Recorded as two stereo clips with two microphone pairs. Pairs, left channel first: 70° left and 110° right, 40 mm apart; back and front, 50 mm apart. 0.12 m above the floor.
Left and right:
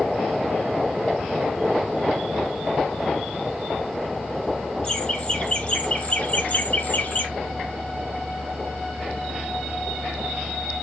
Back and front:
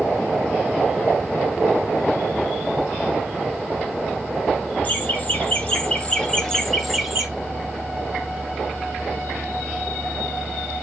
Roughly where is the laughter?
Behind left.